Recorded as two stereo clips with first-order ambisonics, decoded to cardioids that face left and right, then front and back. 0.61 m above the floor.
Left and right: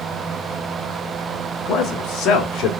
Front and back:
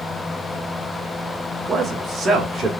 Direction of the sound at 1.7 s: 125° left.